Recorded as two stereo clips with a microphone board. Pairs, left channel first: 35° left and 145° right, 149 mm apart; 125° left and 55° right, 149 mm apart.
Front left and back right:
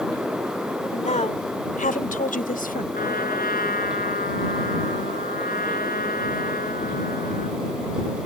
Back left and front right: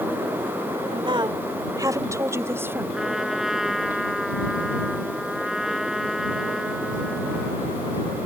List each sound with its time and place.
0.9 s a woman speaking: 5° right; by 2.8 s 20° left
2.9 s a trumpet: 30° left